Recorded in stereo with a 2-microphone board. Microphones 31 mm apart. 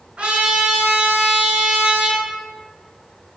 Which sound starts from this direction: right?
A trumpet, at 0.2 s.